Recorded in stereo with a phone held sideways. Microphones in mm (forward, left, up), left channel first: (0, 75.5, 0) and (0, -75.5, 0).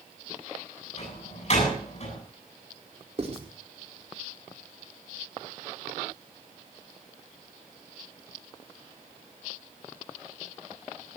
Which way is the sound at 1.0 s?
50° left (ahead or behind).